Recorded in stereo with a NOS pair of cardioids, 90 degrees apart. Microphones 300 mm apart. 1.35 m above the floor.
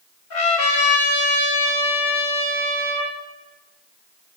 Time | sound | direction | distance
0.3 | a trumpet | 65° left | 4 m